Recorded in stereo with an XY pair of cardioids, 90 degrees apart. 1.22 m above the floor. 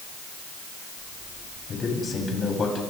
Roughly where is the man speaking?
Ahead left.